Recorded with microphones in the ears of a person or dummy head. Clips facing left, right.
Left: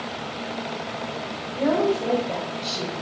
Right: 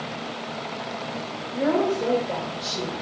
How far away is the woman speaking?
About 2 m.